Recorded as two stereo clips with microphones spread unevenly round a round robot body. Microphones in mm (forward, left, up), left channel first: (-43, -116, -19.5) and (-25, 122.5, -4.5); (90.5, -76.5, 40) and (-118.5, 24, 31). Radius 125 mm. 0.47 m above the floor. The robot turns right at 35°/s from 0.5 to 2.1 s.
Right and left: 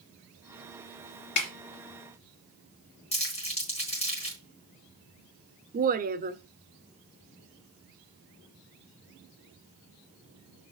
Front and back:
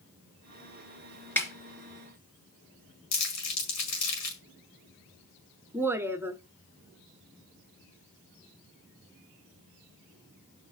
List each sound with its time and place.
1.4 s a snare drum: 110° right, 3.5 m; by 1.5 s 105° right, 3.5 m
3.1 s crumpling: 25° right, 4.5 m
5.7 s a woman speaking: 90° left, 0.9 m